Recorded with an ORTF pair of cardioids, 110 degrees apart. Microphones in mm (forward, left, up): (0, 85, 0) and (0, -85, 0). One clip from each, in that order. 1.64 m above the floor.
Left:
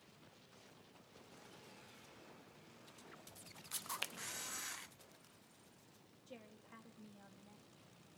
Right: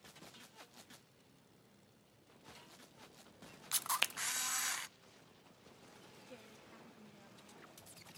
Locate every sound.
3.7 s a camera shutter: 40° right, 0.6 m
6.3 s a woman speaking: 15° left, 3.5 m